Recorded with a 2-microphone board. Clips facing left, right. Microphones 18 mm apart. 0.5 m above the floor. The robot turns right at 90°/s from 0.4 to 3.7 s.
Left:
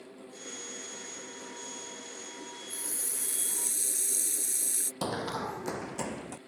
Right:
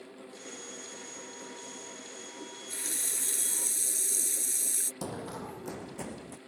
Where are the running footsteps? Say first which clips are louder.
Left 5 dB; 60° left (ahead or behind); by 6.4 s 55° left (ahead or behind).